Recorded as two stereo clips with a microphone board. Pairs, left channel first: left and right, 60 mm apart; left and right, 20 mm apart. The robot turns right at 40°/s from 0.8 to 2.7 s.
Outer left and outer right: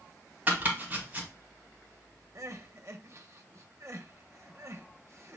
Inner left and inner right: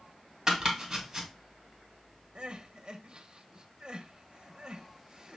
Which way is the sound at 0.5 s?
30° right (ahead or behind).